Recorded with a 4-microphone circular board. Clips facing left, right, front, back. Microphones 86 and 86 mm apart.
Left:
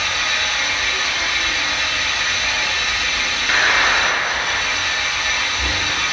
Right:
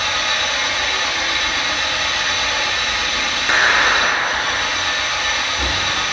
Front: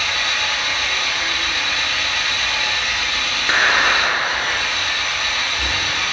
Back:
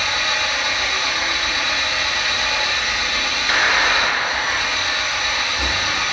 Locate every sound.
0.0 s an engine running: 110° right, 2.5 m
3.5 s a clap: 40° right, 1.1 m